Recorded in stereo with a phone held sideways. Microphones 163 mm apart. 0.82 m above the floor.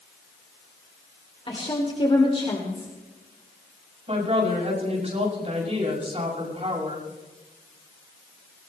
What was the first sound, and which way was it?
A woman speaking, 30° left (ahead or behind).